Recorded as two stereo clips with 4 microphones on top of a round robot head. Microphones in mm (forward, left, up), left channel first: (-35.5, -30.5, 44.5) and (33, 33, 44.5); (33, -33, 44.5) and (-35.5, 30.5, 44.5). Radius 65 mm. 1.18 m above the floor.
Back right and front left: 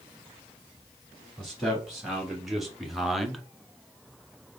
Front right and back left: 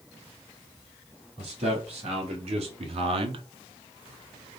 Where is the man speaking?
130° left, 2.5 m; by 3.4 s 135° left, 0.5 m.